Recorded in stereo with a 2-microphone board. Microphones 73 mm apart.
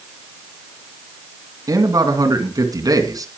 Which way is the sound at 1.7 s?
55° right (ahead or behind).